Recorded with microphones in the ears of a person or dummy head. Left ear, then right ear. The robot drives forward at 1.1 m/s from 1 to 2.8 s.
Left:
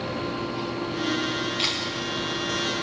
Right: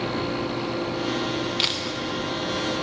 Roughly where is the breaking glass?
No breaking glass in this recording.